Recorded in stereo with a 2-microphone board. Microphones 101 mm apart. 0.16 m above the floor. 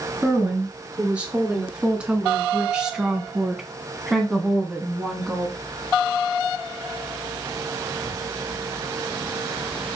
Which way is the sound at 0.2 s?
15° right (ahead or behind).